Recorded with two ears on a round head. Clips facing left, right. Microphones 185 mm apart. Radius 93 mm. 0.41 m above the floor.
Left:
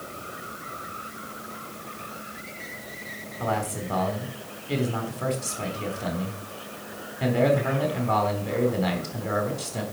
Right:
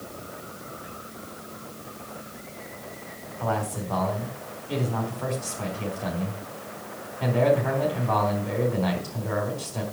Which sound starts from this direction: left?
A man speaking, at 3.4 s.